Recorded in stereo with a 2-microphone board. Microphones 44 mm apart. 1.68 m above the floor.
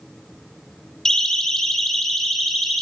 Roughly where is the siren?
Centre.